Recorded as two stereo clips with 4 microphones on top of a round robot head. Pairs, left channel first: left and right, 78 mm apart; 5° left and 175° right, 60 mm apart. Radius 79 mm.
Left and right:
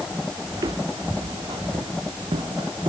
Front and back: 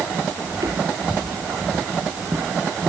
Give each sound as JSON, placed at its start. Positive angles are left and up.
{"t": 0.5, "sound": "footsteps", "azimuth_deg": -140}